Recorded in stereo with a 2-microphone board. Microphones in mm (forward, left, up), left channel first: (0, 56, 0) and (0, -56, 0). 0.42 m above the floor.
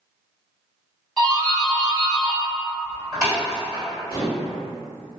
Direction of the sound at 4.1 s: 40° left (ahead or behind).